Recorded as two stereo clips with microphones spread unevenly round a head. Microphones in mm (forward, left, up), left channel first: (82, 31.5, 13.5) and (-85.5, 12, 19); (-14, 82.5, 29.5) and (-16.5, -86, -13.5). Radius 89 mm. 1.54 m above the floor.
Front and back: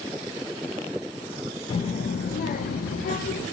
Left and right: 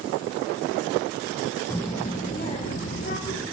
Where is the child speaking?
40° left, 0.8 m.